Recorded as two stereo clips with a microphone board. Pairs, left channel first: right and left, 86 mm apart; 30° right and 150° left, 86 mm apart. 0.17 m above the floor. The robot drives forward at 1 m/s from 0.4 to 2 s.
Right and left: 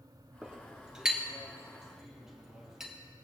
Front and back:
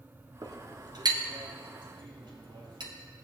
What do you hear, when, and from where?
0.4 s a clink: 160° left, 1.2 m; by 2.9 s 175° left, 2.5 m